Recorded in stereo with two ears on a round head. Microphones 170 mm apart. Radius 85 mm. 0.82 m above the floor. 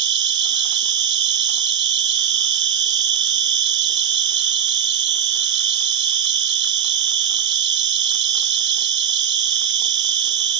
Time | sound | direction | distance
0.0 | an insect | 60° right (ahead or behind) | 0.7 m